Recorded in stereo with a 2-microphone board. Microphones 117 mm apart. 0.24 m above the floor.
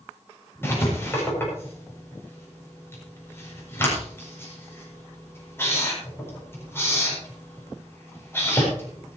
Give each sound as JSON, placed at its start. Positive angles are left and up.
{"t": 0.6, "sound": "writing", "side_deg": 20, "distance_m": 8.0}